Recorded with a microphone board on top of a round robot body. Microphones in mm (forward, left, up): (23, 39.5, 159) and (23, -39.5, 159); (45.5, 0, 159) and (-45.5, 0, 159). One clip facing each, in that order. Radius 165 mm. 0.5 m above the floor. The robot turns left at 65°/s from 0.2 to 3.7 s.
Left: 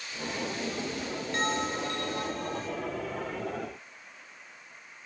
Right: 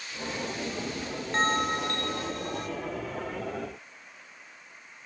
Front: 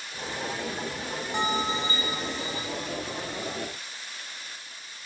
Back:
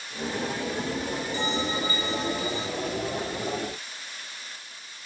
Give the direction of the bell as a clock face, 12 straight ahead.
1 o'clock.